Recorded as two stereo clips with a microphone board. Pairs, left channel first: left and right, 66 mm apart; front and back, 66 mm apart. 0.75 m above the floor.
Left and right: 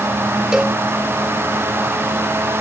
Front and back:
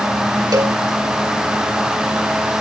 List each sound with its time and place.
0.5 s a cowbell: 170° right